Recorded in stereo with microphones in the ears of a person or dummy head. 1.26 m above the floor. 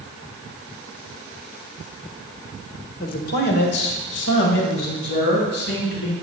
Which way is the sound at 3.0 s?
50° left (ahead or behind).